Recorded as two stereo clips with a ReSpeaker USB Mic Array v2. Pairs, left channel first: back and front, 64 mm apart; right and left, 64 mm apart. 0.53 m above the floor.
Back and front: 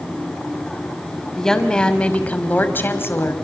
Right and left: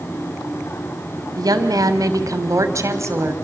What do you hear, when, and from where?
1.4 s a woman speaking: 100° left, 2.5 m; by 3.3 s 135° left, 2.5 m